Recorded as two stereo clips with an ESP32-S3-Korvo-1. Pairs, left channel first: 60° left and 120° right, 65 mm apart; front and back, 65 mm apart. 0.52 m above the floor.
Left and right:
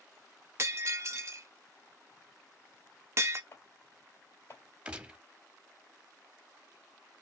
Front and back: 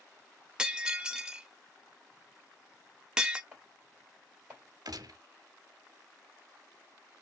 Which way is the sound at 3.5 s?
110° left.